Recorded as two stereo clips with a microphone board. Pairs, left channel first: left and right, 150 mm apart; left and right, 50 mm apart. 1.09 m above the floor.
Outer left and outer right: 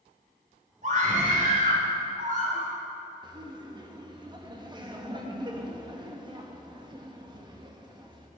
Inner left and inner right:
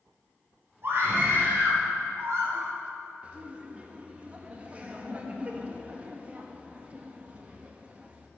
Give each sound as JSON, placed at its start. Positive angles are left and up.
{"t": 0.8, "sound": "a scream", "side_deg": -55, "distance_m": 4.0}
{"t": 3.2, "sound": "laughter", "side_deg": -30, "distance_m": 1.3}